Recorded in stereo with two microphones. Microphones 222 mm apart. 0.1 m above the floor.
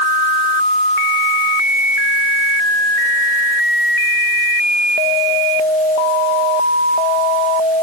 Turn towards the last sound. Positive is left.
No sound to turn to.